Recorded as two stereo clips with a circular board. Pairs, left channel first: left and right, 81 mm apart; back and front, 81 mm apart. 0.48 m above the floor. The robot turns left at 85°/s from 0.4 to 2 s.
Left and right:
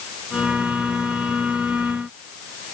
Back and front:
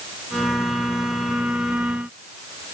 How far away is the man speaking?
No man speaking in this recording.